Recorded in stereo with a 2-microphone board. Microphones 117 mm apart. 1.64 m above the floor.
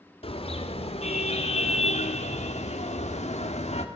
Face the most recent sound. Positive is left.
turn(degrees=70)  # may be behind; listen again after turning